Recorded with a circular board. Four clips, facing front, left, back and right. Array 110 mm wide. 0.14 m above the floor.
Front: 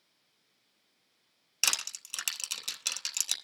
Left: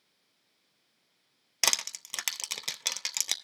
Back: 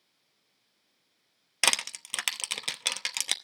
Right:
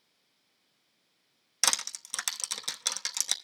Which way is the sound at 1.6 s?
160° left.